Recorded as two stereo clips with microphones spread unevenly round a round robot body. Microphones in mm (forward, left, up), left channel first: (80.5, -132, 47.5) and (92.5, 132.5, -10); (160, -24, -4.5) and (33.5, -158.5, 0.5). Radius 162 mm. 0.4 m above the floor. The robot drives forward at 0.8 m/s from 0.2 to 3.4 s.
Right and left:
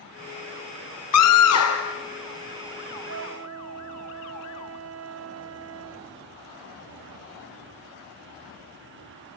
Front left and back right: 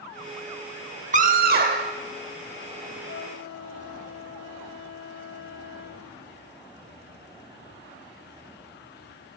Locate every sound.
1.1 s a scream: 105° right, 1.0 m; by 1.9 s 140° right, 1.3 m
3.1 s a flute: 60° left, 1.3 m; by 6.2 s 75° left, 1.2 m